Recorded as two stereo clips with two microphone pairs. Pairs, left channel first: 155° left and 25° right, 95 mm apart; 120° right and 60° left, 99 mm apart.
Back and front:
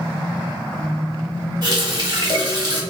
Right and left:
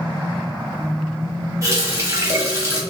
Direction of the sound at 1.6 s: 10° left.